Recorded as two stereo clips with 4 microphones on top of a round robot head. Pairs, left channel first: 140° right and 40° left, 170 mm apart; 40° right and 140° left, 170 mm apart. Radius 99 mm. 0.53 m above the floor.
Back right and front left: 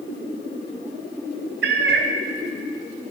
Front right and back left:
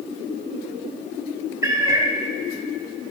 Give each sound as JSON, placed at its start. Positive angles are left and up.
{"t": 1.6, "sound": "a cat meowing", "azimuth_deg": 70, "distance_m": 0.6}